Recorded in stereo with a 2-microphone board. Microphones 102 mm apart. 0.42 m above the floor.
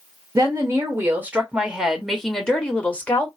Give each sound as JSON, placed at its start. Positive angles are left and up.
{"t": 0.3, "sound": "a woman speaking", "side_deg": -35, "distance_m": 1.5}